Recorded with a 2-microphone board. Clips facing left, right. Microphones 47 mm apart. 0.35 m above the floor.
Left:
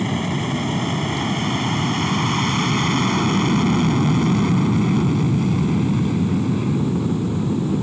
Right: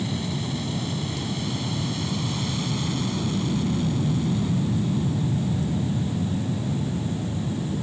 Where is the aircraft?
45° left (ahead or behind); by 7.8 s 65° left (ahead or behind).